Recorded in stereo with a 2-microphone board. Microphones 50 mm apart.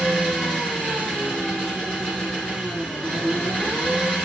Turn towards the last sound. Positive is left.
turn(degrees=20)  # may be behind; listen again after turning